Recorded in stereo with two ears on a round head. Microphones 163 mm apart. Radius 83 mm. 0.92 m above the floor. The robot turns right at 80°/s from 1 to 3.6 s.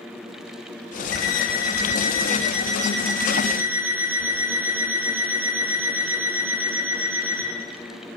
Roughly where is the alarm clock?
Left.